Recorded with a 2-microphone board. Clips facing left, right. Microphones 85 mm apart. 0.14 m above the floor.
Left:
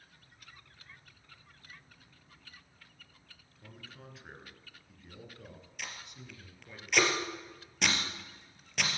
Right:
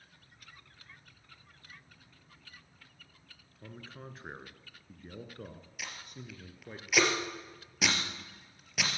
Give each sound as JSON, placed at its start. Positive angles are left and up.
{"t": 3.6, "sound": "a man speaking", "side_deg": -35, "distance_m": 1.7}
{"t": 5.8, "sound": "tape being pulled", "side_deg": -5, "distance_m": 3.0}